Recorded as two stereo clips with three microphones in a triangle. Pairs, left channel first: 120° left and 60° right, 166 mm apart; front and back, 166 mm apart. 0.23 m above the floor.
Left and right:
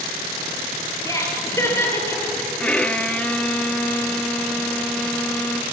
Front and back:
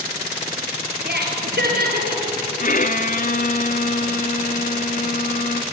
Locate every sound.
1.1 s laughter: 170° right, 4.5 m; by 2.5 s 165° right, 5.5 m
2.6 s a violin: 35° left, 0.9 m